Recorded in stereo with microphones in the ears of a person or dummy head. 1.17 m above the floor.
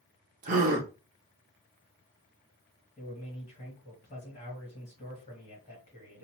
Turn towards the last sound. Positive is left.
turn(degrees=25)  # may be behind; listen again after turning